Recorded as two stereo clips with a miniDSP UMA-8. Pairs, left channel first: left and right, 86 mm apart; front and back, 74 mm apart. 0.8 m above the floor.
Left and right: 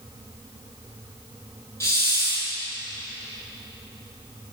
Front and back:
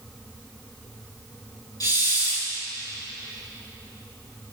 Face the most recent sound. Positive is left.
turn(degrees=35)